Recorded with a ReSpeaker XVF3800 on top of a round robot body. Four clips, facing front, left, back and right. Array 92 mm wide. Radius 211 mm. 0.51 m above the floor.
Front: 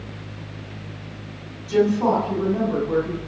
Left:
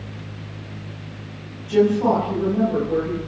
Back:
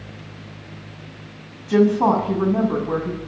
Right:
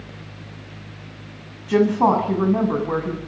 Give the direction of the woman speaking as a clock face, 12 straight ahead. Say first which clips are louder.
Even, back 2 dB; 4 o'clock.